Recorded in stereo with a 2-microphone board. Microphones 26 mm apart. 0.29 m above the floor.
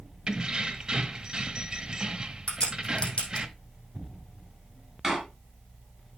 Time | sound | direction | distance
0.3 | keys jangling | 30° right (ahead or behind) | 0.9 m
2.5 | a crack | 40° left (ahead or behind) | 3.5 m
5.0 | a door slam | 5° right (ahead or behind) | 3.5 m